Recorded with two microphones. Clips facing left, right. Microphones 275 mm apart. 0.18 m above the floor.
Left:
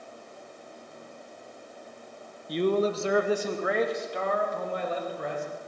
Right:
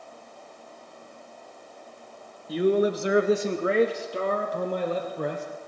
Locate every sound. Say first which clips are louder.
2.5 s a man speaking: right 3 dB; 5° right (ahead or behind), 1.9 m; by 5.5 s 45° right (ahead or behind), 4.5 m